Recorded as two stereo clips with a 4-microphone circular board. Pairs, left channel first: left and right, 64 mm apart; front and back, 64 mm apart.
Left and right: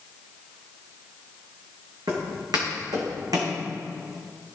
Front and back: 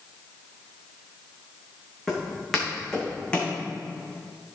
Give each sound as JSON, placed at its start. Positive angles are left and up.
{"t": 2.1, "sound": "footsteps", "azimuth_deg": -90, "distance_m": 3.0}